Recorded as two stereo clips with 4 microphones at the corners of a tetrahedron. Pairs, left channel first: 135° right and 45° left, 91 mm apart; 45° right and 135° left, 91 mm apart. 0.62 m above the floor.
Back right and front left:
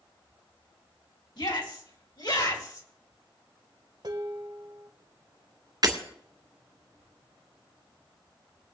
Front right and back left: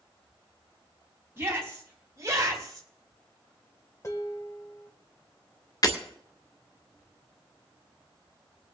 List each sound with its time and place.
1.4 s a shout: 165° right, 4 m; by 2.9 s 175° right, 3 m
4.0 s dishes clattering: 5° left, 1.5 m
5.8 s breaking glass: straight ahead, 2 m